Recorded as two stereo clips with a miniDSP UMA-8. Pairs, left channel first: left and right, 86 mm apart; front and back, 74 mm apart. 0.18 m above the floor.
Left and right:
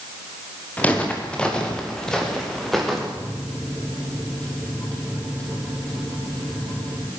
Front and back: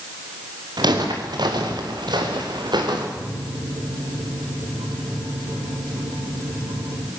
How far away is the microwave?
About 6 m.